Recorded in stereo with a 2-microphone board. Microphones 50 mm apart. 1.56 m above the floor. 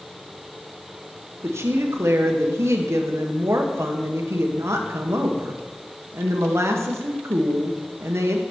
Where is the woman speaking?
75° right (ahead or behind), 0.9 m.